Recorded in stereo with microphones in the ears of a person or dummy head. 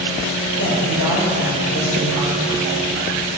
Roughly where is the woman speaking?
Left.